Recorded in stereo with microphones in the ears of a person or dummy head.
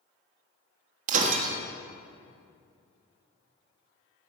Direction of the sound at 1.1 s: 55° right (ahead or behind).